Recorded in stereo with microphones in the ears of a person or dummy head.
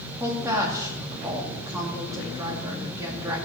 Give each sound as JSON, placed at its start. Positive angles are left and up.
{"t": 0.2, "sound": "a woman speaking", "side_deg": -10, "distance_m": 2.5}